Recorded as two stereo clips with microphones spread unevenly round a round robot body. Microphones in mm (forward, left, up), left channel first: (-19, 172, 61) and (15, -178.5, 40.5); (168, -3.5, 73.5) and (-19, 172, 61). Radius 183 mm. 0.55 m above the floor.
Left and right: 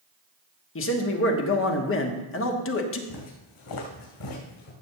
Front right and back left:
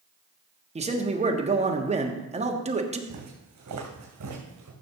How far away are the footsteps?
About 3 m.